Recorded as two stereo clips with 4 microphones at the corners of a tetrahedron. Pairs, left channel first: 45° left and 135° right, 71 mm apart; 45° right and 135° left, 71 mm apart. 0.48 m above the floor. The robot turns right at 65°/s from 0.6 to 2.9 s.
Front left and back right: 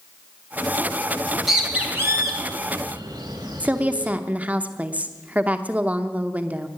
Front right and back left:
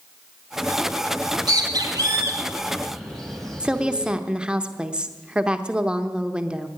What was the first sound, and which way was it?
A bird, 125° left.